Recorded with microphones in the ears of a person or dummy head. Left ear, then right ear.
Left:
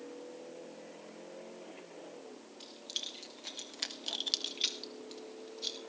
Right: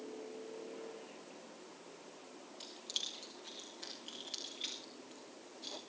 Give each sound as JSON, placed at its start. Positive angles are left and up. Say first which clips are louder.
{"t": 2.6, "sound": "keys jangling", "louder": "left 1 dB", "side_deg": 5, "distance_m": 1.2}